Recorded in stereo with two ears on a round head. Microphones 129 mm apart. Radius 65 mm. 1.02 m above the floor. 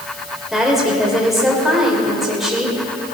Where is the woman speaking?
Centre (ahead or behind), 3 m.